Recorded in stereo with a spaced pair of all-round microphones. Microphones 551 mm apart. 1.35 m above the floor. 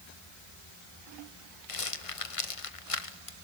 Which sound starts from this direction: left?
A rattle, at 1.7 s.